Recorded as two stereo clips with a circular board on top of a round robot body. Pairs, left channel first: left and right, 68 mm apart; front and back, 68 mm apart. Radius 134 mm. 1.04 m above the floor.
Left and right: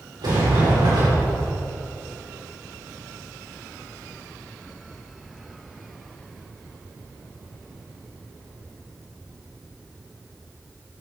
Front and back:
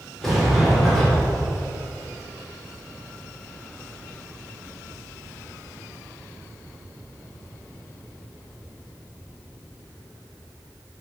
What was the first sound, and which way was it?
A sliding door, 85° right.